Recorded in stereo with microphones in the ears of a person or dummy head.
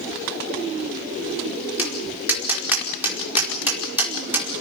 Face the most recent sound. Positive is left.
turn(degrees=-15)  # may be behind; listen again after turning